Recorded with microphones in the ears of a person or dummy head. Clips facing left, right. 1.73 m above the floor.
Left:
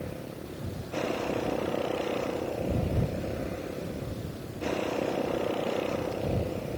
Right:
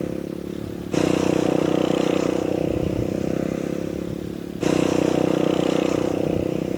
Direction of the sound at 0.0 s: 70° right (ahead or behind).